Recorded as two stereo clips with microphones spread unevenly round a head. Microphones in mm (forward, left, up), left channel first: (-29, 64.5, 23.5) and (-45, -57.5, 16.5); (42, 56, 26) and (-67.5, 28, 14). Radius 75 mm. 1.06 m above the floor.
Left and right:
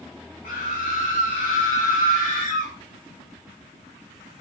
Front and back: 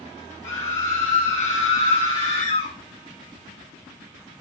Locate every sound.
0.4 s a scream: 45° left, 3 m; by 2.7 s 25° left, 4 m